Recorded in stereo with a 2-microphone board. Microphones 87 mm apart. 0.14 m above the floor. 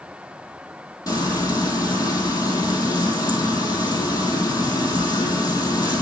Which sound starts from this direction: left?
Frying, at 1.1 s.